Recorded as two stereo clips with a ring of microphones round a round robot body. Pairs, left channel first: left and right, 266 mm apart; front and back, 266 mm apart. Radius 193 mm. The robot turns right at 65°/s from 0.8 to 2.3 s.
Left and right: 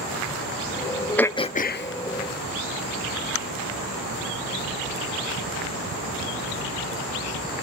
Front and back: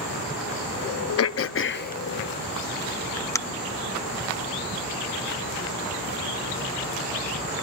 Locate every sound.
1.2 s throat clearing: 5° left, 0.7 m; by 3.4 s 80° left, 0.7 m